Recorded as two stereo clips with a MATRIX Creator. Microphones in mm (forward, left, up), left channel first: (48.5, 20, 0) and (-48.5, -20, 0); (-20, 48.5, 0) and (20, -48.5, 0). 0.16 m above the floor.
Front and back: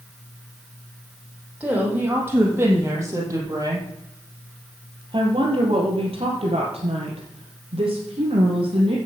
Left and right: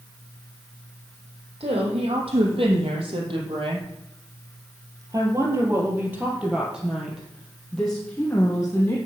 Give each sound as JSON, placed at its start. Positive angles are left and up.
{"t": 1.6, "sound": "a woman speaking", "azimuth_deg": -85, "distance_m": 5.0}